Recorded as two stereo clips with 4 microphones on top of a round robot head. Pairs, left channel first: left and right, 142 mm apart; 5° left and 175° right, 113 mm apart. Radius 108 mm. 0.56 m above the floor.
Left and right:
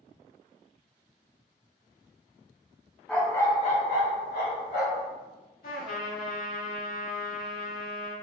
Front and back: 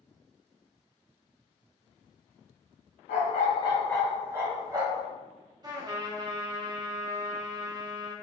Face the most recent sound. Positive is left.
turn(degrees=135)